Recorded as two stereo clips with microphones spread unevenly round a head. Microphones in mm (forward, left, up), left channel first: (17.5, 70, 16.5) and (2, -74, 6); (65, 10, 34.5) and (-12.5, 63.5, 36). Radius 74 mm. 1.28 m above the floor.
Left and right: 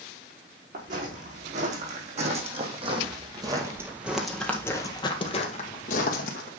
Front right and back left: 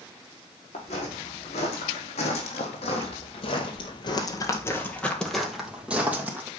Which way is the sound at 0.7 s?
60° right.